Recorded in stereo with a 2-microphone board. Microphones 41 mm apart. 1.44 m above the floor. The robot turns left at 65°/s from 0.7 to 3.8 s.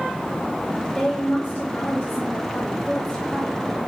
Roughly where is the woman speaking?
Behind.